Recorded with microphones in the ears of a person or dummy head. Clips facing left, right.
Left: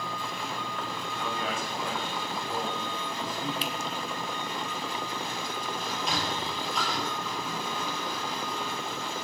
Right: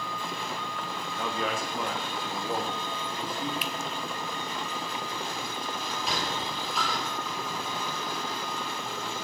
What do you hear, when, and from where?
1.2 s a man speaking: 65° right (ahead or behind), 2 m; by 3.5 s 20° right (ahead or behind), 3 m
3.6 s a finger snap: 30° left (ahead or behind), 1.0 m
5.8 s a sliding door: centre (ahead or behind), 3.5 m